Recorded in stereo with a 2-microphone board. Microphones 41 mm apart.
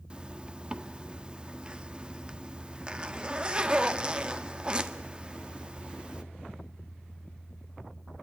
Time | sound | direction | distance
0.1 | a zipper | 20° right (ahead or behind) | 1.0 m